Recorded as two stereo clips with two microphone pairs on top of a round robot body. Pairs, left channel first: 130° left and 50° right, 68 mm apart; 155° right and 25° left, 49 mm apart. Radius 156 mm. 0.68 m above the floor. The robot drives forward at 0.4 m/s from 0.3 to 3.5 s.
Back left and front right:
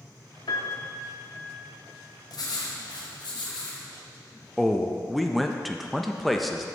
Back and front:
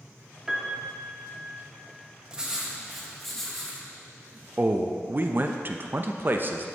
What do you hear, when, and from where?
0.5 s a piano: 100° left, 0.7 m; by 1.5 s 125° left, 0.9 m
2.3 s writing: 100° left, 0.9 m; by 3.8 s 125° left, 1.1 m
4.6 s a man speaking: 40° left, 0.6 m